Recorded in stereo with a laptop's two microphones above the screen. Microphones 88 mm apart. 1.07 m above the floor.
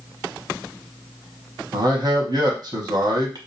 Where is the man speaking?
50° right (ahead or behind), 0.8 m.